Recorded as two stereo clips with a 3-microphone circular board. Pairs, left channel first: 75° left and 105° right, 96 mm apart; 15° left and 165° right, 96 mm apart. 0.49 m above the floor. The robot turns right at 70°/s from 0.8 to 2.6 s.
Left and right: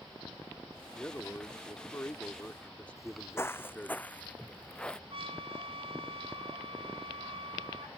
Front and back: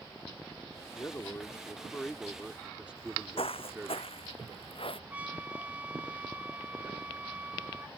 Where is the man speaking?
15° left; by 4.0 s 130° left.